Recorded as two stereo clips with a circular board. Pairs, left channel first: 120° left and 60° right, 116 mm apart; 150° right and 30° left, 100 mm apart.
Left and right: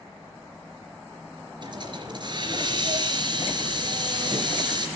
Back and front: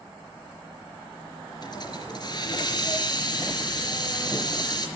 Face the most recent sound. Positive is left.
turn(degrees=-110)